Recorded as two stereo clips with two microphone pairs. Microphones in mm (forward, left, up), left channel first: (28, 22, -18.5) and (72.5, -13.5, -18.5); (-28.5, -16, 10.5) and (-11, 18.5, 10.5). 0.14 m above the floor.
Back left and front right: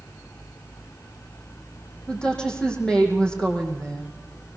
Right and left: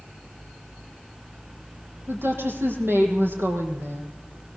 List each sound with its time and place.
2.1 s a woman speaking: 65° left, 6.5 m